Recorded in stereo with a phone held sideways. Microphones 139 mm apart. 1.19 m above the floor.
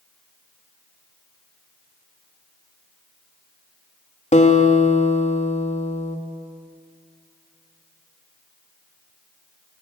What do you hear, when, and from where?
4.3 s a guitar: 60° left (ahead or behind), 2.5 m